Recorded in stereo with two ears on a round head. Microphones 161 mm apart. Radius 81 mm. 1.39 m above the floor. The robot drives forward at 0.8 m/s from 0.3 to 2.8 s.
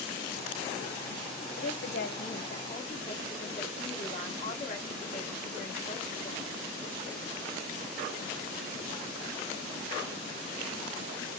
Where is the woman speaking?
75° left (ahead or behind), 1.3 m; by 6.5 s 45° left (ahead or behind), 1.8 m.